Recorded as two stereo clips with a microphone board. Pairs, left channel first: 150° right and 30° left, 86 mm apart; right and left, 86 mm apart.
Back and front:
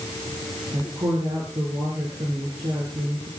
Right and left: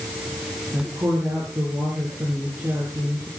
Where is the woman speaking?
25° left, 6 m.